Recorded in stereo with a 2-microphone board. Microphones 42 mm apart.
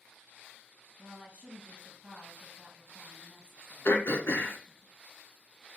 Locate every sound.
1.0 s a woman speaking: 20° right (ahead or behind), 1.5 m
3.9 s throat clearing: 60° left (ahead or behind), 0.7 m